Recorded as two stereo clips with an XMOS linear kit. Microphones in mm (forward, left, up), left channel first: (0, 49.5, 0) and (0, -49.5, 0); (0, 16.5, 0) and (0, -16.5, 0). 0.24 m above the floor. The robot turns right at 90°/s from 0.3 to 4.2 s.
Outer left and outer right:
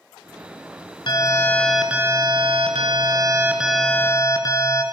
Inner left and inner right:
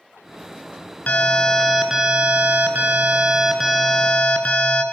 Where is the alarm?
120° left, 3.5 m; by 4.8 s 45° left, 3.5 m.